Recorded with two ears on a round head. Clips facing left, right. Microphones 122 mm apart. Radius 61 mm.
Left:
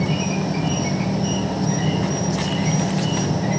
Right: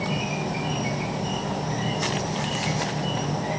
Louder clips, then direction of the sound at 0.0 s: Left 5 dB; 55° left (ahead or behind).